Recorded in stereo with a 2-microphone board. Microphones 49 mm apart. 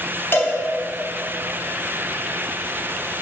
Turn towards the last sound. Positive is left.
turn(degrees=45)  # may be behind; listen again after turning